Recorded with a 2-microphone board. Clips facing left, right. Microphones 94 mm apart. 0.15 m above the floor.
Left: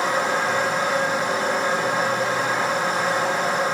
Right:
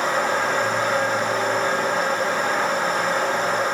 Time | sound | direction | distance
0.0 | running water | 15° left (ahead or behind) | 6 m